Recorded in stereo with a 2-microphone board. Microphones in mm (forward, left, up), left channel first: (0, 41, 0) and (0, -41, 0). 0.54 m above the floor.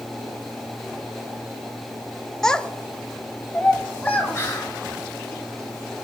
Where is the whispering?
35° left (ahead or behind), 2 m.